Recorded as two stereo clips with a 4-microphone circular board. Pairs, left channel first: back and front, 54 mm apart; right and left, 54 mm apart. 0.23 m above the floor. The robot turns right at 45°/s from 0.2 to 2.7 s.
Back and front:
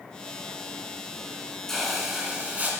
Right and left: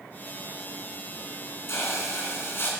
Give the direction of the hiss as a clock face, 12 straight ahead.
3 o'clock.